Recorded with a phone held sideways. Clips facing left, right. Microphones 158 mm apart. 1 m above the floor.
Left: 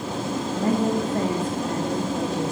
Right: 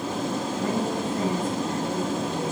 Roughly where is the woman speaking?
Left.